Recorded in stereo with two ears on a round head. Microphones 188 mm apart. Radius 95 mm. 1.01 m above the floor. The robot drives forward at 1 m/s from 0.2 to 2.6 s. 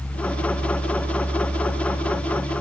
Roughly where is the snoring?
No snoring in this recording.